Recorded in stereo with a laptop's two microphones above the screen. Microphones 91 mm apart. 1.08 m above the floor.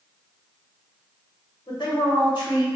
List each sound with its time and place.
1.7 s a woman speaking: 60° left (ahead or behind), 1.3 m